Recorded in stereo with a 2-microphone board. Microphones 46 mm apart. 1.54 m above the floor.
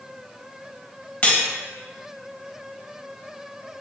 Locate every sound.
1.2 s cutlery clinking: 25° left (ahead or behind), 0.8 m